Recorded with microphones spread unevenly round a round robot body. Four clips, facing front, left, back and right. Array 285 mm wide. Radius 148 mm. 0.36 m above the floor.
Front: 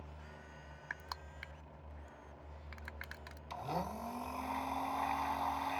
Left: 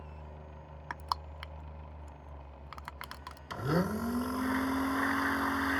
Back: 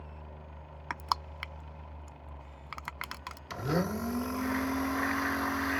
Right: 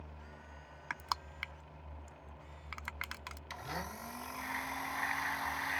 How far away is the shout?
I don't hear a shout.